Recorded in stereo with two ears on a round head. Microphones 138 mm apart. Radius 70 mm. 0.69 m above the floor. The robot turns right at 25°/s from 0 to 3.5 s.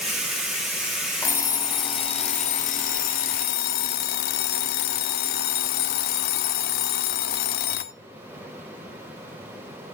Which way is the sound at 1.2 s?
15° left.